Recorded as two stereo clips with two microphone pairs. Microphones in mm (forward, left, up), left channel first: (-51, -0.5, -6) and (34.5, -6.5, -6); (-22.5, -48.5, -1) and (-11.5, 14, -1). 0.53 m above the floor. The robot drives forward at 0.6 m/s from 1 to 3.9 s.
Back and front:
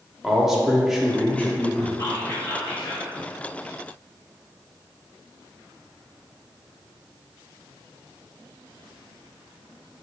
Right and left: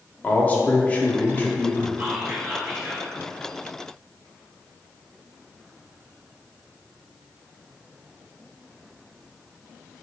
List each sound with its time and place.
0.2 s a man speaking: 85° right, 0.6 m; by 1.9 s 150° right, 0.8 m
2.0 s whispering: 150° left, 1.5 m; by 3.1 s 160° left, 2 m